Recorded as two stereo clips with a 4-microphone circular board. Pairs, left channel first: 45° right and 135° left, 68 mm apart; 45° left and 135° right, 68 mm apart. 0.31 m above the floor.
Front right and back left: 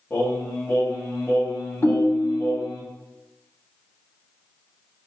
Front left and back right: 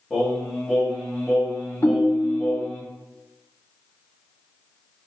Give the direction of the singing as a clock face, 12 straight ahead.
1 o'clock.